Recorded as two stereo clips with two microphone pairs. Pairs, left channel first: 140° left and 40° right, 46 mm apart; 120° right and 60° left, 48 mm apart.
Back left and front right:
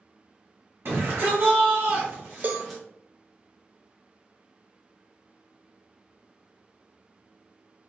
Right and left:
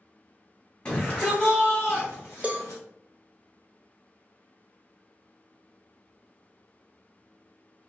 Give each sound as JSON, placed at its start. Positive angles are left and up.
{"t": 0.8, "sound": "a shout", "azimuth_deg": -60, "distance_m": 1.9}
{"t": 2.4, "sound": "a cowbell", "azimuth_deg": 0, "distance_m": 0.5}